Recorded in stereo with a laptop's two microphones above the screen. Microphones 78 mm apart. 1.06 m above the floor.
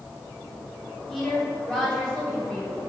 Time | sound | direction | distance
1.1 | a woman speaking | 10° left (ahead or behind) | 3.5 m